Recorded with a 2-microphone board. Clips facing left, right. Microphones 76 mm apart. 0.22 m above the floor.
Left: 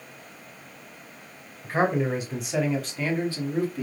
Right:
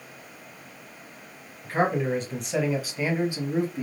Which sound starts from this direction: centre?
A man speaking, at 1.6 s.